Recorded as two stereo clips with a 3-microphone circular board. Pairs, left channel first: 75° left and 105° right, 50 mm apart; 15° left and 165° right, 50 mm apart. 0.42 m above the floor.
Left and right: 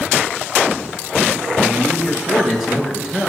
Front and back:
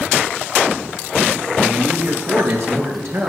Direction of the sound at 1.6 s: 170° left.